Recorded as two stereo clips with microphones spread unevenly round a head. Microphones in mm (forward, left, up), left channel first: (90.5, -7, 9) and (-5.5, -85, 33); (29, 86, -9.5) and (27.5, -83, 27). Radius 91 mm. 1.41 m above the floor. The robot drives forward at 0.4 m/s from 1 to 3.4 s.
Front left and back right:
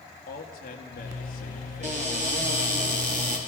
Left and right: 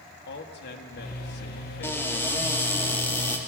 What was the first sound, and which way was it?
A man speaking, 65° left.